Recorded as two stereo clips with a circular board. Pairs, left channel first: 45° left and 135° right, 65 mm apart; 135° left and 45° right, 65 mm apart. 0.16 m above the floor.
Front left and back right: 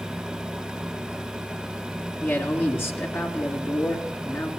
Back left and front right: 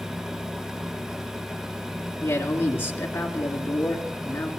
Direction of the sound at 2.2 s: 85° left.